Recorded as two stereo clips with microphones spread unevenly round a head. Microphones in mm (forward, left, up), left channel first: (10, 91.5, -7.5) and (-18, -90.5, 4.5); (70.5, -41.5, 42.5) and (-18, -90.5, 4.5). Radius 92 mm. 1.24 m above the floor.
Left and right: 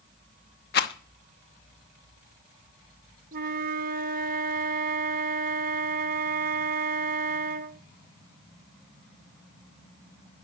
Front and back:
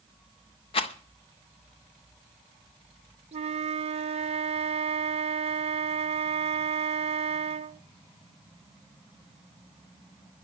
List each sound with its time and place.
0.7 s a rattle: 45° left, 1.1 m
3.3 s a flute: 130° right, 0.8 m